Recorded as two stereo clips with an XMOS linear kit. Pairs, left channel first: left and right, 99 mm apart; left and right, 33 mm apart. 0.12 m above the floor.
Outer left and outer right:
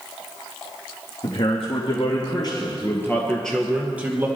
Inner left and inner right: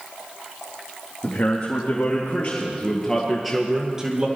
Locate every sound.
1.2 s a man speaking: 70° left (ahead or behind), 3.5 m; by 4.3 s 25° right (ahead or behind), 2.5 m